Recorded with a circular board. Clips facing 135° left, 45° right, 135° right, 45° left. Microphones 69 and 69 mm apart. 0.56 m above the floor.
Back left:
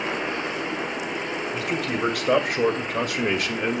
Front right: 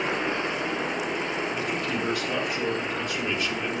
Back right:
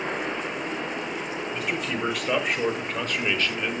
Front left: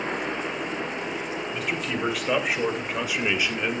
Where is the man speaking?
135° left, 3 m; by 3.8 s 115° left, 1.5 m.